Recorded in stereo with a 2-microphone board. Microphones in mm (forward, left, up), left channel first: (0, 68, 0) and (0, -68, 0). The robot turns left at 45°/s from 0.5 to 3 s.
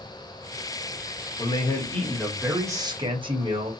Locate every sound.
1.4 s a man speaking: 35° left, 0.9 m; by 3.7 s 35° right, 0.9 m